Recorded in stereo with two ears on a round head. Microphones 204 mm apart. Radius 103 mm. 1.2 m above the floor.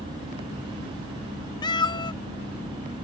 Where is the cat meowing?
20° left (ahead or behind).